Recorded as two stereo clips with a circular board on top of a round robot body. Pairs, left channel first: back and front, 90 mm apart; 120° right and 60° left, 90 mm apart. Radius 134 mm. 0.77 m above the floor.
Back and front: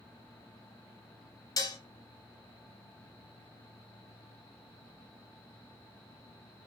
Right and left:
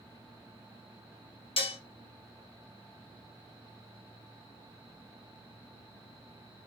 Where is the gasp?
I don't hear a gasp.